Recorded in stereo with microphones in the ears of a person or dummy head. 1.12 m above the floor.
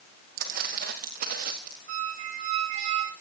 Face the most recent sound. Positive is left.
turn(degrees=-45)  # may be behind; listen again after turning